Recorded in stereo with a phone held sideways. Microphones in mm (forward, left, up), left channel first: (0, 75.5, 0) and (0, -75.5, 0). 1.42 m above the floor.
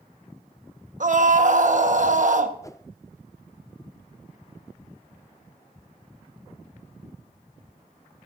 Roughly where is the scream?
Right.